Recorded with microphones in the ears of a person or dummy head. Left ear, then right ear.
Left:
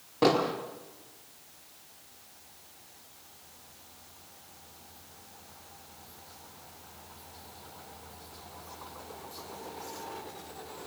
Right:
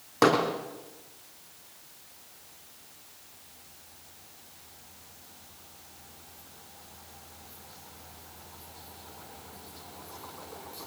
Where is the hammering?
55° right (ahead or behind), 5 m.